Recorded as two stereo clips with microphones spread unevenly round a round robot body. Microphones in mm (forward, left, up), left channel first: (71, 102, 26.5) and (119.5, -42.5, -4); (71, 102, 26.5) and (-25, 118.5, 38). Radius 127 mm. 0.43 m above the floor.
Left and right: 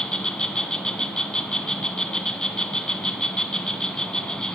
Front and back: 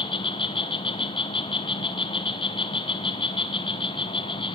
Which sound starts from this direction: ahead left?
An insect, at 0.0 s.